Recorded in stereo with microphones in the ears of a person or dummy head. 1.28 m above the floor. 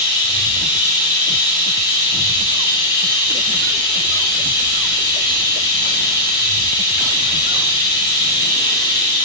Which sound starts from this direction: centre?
Running water, at 0.0 s.